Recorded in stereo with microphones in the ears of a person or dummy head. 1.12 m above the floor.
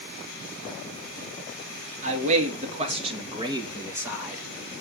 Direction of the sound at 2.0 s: 40° right (ahead or behind).